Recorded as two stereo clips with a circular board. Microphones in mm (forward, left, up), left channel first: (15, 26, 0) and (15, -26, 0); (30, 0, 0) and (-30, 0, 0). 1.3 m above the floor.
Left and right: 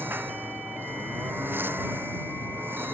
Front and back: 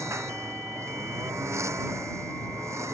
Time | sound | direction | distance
0.0 | a lawn mower | 140° right | ?